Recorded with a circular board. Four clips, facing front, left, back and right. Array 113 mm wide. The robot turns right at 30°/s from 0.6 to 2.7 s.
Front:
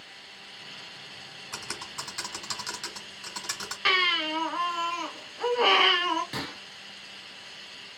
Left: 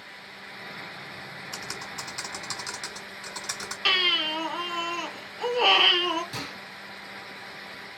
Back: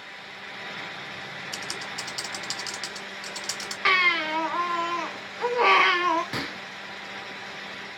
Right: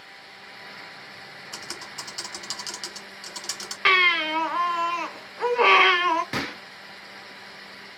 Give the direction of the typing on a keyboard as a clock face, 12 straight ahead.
12 o'clock.